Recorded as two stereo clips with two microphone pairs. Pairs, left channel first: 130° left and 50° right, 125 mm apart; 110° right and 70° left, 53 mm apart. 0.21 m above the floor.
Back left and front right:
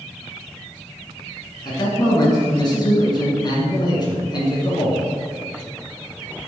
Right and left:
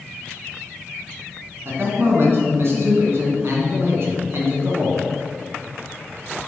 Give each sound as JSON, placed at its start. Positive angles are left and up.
{"t": 1.6, "sound": "a man speaking", "azimuth_deg": 85, "distance_m": 1.8}